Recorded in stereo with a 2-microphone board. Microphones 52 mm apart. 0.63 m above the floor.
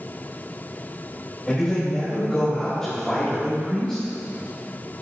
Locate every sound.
1.5 s a man speaking: 15° left (ahead or behind), 3 m; by 4.0 s 10° left (ahead or behind), 4.5 m